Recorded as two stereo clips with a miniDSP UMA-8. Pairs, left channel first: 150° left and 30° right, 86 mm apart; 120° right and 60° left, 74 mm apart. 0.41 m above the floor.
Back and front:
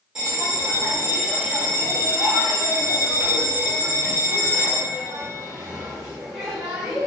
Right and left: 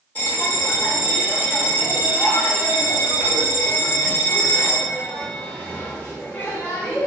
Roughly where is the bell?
Right.